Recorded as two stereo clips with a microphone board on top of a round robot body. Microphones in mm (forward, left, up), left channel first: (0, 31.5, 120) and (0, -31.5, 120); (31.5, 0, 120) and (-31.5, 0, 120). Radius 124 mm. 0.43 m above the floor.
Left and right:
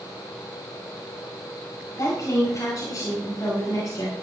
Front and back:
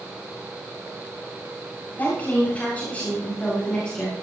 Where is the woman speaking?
60° left, 7 m; by 4.1 s 75° left, 7 m.